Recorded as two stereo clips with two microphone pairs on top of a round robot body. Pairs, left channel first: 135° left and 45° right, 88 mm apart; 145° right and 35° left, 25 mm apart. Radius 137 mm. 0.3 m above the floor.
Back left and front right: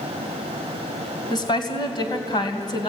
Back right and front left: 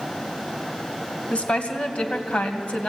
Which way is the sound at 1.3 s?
Straight behind.